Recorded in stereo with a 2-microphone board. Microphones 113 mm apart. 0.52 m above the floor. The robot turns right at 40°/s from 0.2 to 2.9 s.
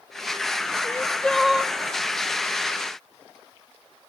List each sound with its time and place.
0.8 s crying: 155° left, 0.6 m; by 1.7 s 170° right, 0.6 m